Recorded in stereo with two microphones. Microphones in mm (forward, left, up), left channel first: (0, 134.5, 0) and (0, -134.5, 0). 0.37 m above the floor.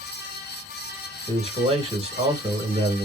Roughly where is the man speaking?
Right.